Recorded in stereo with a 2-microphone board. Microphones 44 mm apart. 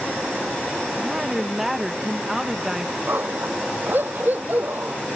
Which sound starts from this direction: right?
A dog barking, at 3.1 s.